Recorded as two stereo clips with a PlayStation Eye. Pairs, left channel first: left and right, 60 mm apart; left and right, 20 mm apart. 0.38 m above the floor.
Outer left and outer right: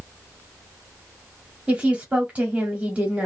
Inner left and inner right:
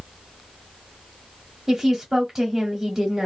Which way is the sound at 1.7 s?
20° right (ahead or behind).